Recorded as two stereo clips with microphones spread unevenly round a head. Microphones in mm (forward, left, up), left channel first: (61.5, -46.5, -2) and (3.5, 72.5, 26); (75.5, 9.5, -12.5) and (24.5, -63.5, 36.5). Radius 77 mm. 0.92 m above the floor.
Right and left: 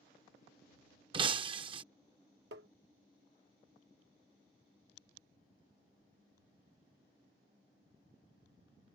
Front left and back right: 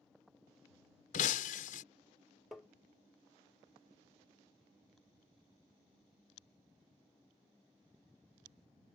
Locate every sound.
1.1 s breaking glass: 80° left
2.5 s tapping: 145° left